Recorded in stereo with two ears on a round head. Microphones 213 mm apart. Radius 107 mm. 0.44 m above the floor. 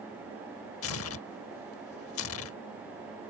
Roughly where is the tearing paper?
Left.